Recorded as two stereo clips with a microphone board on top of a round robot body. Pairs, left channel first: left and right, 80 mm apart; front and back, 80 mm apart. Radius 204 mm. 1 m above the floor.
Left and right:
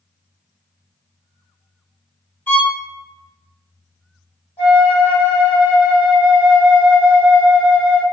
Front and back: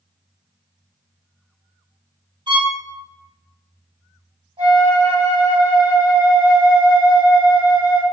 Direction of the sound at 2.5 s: 160° left.